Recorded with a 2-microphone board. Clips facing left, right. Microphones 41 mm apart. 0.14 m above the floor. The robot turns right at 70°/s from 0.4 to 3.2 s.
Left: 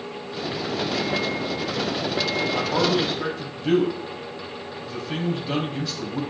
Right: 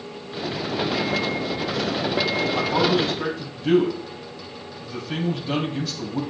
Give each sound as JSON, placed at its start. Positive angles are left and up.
{"t": 2.5, "sound": "a man speaking", "azimuth_deg": 135, "distance_m": 4.5}